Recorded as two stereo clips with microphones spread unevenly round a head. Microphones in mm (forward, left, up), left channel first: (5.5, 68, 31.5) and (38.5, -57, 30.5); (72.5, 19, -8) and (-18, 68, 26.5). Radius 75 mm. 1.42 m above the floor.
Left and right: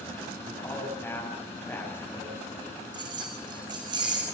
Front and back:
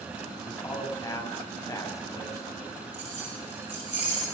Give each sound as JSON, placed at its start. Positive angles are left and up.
{"t": 0.5, "sound": "a man speaking", "azimuth_deg": 35, "distance_m": 9.5}
{"t": 2.9, "sound": "keys jangling", "azimuth_deg": -135, "distance_m": 4.5}